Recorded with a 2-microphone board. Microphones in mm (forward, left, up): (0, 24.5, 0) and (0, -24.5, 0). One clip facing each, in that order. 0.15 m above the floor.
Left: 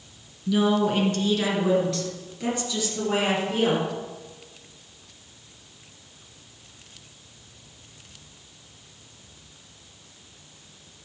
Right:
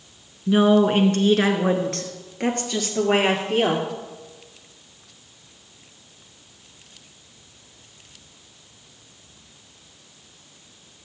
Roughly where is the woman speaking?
Right.